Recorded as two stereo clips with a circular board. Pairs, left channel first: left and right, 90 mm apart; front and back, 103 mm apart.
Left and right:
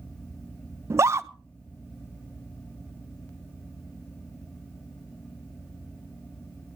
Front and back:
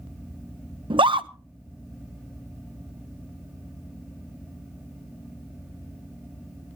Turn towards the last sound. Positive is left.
turn(degrees=-145)